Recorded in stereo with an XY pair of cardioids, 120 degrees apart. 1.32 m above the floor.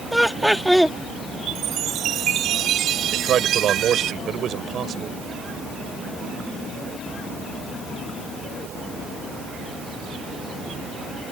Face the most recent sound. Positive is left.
turn(degrees=-55)